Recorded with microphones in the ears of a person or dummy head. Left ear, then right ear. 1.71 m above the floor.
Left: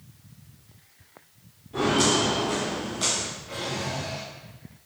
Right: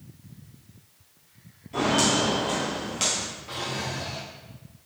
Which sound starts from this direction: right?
A drawer, at 3.5 s.